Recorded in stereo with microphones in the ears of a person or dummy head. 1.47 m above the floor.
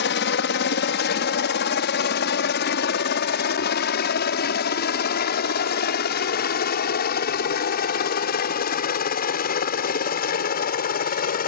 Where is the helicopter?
55° left (ahead or behind); by 11.5 s 45° left (ahead or behind).